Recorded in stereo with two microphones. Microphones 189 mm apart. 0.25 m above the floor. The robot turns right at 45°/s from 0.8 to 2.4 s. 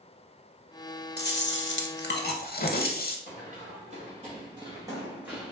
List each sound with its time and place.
1.2 s chewing: 65° left, 0.5 m; by 3.2 s 120° left, 0.5 m
3.3 s running footsteps: 45° right (ahead or behind), 1.7 m; by 5.5 s centre (ahead or behind), 1.0 m